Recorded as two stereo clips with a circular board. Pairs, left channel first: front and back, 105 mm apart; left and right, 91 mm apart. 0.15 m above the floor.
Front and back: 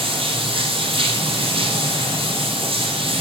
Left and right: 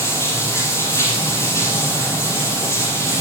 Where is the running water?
150° left, 4 m.